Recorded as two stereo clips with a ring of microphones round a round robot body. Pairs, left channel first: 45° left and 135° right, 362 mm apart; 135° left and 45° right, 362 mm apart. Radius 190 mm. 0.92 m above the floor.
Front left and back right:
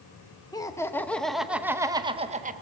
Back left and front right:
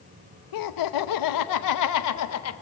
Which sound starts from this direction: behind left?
Laughter, at 0.5 s.